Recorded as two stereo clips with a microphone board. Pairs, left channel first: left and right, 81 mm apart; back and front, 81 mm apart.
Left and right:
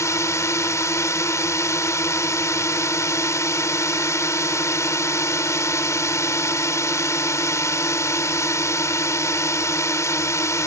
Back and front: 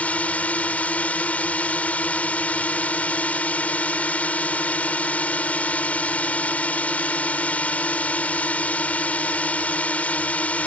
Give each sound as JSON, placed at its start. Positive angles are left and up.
{"t": 0.0, "sound": "a drone", "azimuth_deg": 115}